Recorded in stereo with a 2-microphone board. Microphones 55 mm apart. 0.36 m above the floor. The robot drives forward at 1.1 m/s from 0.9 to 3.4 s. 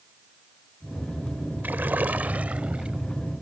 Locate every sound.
1.6 s a splash: 35° right (ahead or behind); by 3.0 s 20° right (ahead or behind)